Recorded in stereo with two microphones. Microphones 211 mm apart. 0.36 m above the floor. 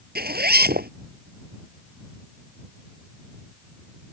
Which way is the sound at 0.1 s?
50° right (ahead or behind).